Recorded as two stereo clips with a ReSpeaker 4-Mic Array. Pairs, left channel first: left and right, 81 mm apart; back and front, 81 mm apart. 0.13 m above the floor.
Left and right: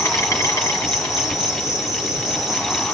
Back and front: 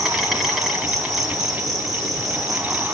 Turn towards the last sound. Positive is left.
turn(degrees=85)